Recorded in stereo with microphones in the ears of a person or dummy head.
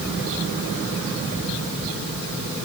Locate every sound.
Only background noise.